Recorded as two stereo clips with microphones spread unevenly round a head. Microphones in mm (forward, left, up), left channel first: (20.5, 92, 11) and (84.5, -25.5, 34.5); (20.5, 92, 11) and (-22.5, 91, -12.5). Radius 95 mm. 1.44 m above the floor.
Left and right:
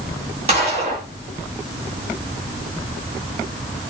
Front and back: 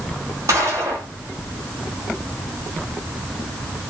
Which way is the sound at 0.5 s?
115° right.